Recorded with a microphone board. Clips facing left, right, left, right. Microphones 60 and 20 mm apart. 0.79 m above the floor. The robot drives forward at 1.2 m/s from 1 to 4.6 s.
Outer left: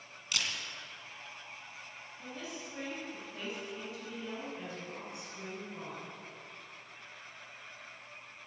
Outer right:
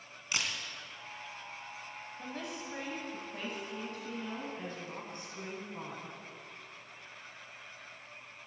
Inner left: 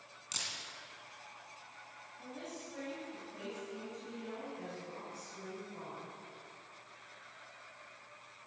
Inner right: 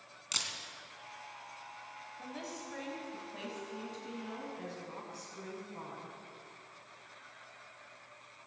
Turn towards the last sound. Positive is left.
turn(degrees=-45)  # may be behind; listen again after turning